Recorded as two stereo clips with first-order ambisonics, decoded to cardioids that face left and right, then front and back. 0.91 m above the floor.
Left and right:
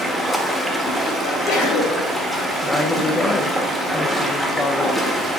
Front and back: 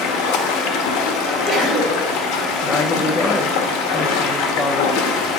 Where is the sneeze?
65° left, 4 m.